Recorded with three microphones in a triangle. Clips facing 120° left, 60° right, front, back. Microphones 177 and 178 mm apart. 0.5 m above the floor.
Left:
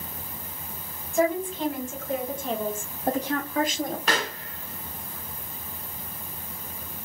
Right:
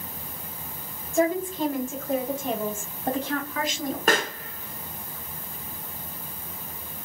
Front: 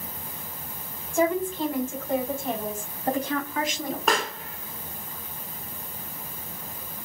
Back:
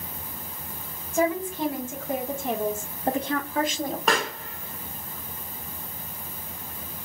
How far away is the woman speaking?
About 1.8 m.